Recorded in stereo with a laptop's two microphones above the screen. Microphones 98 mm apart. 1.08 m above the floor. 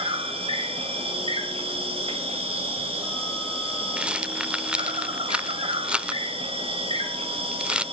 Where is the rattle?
10° right (ahead or behind), 0.8 m.